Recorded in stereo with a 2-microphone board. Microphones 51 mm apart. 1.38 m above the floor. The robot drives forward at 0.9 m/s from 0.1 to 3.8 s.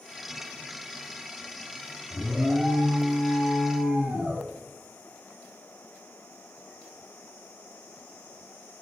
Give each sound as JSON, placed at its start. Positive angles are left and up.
{"t": 2.1, "sound": "an alarm", "side_deg": -10, "distance_m": 3.5}